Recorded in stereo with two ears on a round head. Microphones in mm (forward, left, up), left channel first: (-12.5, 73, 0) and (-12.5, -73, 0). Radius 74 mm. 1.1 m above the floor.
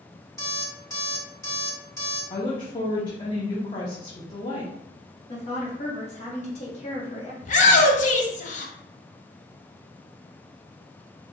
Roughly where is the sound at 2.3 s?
Left.